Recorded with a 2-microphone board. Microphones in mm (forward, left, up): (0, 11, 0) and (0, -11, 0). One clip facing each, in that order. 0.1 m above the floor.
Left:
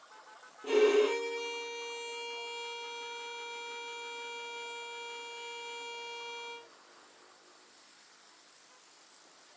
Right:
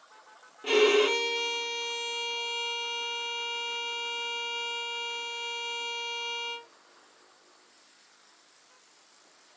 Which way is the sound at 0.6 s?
60° right (ahead or behind).